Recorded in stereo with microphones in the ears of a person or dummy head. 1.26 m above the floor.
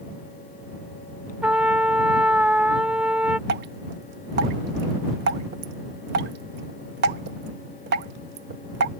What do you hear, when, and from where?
1.4 s a trumpet: 5° right (ahead or behind)
3.5 s dripping: 50° right (ahead or behind)